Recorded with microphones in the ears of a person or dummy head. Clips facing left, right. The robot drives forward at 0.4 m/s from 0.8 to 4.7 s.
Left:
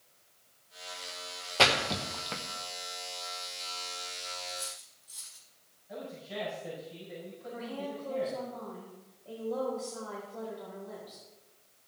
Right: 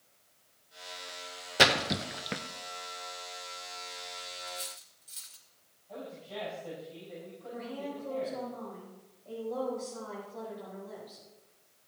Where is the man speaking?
20° left (ahead or behind), 7 m.